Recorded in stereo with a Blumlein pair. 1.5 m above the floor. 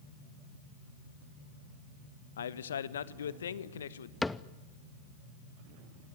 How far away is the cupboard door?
About 0.7 m.